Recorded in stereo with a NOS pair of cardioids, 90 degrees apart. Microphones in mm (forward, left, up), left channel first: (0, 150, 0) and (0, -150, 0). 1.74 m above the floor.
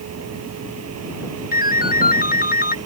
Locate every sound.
0.0 s a vehicle: 60° right
1.5 s a ringtone: 30° left